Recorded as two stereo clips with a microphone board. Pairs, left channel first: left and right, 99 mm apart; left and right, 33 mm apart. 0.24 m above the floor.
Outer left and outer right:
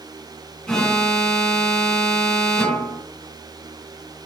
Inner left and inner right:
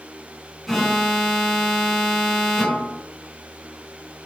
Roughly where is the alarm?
Centre.